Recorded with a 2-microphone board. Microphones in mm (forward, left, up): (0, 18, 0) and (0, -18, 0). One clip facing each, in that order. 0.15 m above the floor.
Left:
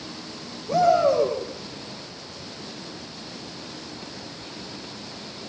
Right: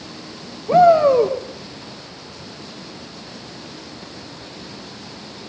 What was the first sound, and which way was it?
A shout, 45° right (ahead or behind).